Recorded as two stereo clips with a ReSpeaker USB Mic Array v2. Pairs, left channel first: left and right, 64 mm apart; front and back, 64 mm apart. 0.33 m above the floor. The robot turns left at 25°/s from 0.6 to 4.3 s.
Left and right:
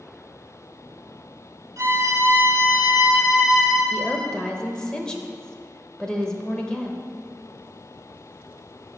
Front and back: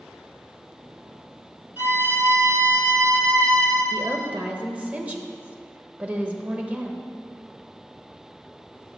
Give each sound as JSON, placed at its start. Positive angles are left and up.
{"t": 1.8, "sound": "a violin", "azimuth_deg": -125, "distance_m": 1.2}
{"t": 3.9, "sound": "a woman speaking", "azimuth_deg": 165, "distance_m": 0.9}